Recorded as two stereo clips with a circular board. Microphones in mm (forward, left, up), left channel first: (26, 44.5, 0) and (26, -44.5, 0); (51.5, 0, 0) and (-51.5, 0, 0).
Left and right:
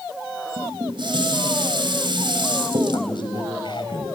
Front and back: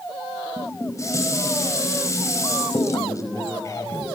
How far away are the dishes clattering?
About 3.5 m.